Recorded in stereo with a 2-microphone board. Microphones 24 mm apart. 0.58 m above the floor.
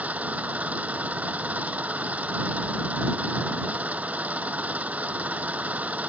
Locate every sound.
0.0 s an engine running: 75° right (ahead or behind)